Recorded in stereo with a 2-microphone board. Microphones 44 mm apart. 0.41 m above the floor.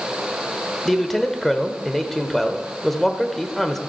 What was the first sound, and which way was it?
A man speaking, 5° left (ahead or behind).